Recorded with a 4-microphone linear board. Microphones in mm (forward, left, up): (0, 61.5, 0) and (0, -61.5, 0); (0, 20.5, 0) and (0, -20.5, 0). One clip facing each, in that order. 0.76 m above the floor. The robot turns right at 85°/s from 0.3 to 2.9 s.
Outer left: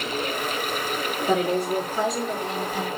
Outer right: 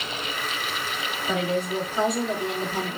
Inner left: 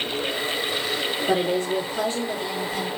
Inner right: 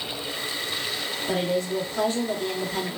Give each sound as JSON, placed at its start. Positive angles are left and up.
{"t": 1.3, "sound": "a woman speaking", "azimuth_deg": 110, "distance_m": 1.7}